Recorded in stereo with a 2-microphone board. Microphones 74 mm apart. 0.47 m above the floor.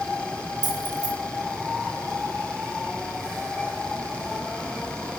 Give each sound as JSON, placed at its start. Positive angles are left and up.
{"t": 0.6, "sound": "keys jangling", "side_deg": -75, "distance_m": 2.5}